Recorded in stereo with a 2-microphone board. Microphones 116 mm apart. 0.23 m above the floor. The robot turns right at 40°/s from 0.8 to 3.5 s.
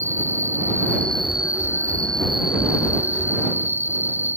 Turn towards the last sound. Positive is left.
turn(degrees=-90)